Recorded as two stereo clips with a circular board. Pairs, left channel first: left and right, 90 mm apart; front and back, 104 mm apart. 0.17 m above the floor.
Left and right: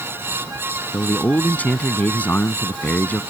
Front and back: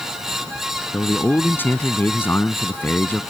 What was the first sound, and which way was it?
A man speaking, 40° left.